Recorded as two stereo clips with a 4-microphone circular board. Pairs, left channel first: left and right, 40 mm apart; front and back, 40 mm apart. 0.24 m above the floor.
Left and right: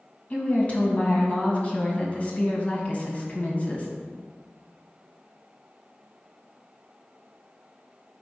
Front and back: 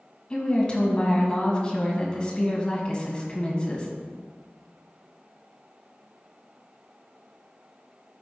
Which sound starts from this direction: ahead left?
A woman speaking, at 0.3 s.